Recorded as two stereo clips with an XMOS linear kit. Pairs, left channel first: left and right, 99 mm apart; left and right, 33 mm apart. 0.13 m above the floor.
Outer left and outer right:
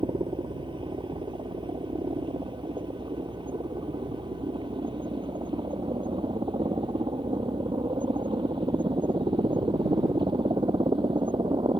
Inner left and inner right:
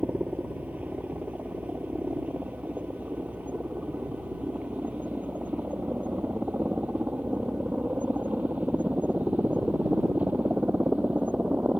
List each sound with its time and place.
0.0 s a helicopter: 55° right (ahead or behind)